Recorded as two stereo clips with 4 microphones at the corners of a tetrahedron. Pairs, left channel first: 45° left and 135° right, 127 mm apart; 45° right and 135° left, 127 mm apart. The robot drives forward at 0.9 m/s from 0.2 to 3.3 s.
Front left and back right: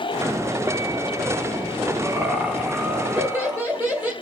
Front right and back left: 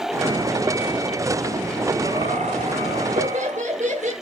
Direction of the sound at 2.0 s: 145° left.